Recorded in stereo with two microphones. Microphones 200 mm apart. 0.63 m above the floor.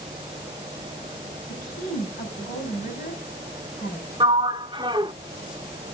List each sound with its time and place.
1.5 s a woman speaking: 45° left (ahead or behind), 4 m
4.2 s a sliding door: 25° right (ahead or behind), 0.5 m